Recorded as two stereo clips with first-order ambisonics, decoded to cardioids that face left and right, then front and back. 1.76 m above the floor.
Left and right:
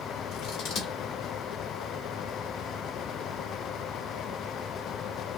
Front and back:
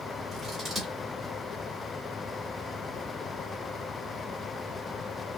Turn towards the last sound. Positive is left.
turn(degrees=95)